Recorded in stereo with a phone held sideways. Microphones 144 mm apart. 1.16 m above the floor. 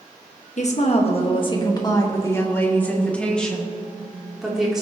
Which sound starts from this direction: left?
A woman speaking, at 0.6 s.